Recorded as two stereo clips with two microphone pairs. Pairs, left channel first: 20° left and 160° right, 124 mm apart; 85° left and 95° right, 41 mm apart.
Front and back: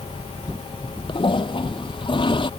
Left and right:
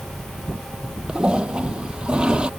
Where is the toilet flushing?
30° right.